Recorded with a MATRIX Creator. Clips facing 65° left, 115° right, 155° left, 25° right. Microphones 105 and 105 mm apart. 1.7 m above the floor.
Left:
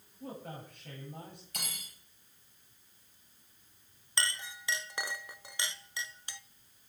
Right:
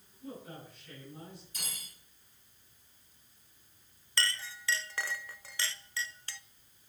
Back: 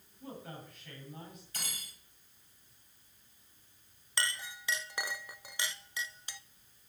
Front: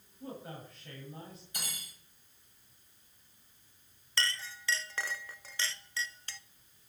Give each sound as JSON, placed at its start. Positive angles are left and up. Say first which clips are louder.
{"t": 0.2, "sound": "a man speaking", "louder": "left 2 dB, front 2 dB", "azimuth_deg": 35, "distance_m": 8.5}
{"t": 1.5, "sound": "cutlery clinking", "louder": "left 3 dB, front 1 dB", "azimuth_deg": 50, "distance_m": 6.0}
{"t": 4.2, "sound": "a clink", "louder": "right 1 dB, front 1 dB", "azimuth_deg": 110, "distance_m": 0.5}